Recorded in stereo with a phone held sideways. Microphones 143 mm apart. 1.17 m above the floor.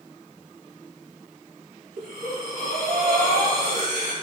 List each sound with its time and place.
2.0 s breathing: 75° right (ahead or behind), 6.5 m